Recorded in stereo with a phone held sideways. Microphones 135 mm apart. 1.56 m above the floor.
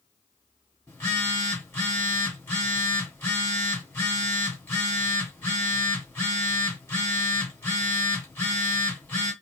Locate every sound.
0.9 s a phone buzzing: 20° left (ahead or behind), 1.7 m